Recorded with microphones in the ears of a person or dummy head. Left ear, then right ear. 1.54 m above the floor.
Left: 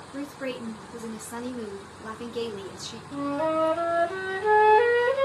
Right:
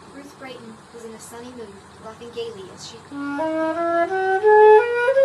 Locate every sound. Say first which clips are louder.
0.1 s a woman speaking: left 4 dB; 10° right (ahead or behind), 1.4 m
3.1 s a flute: right 2 dB; 40° right (ahead or behind), 1.4 m